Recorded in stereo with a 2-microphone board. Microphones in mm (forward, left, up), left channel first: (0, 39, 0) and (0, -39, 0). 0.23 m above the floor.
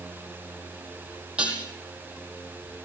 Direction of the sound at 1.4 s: 15° right (ahead or behind).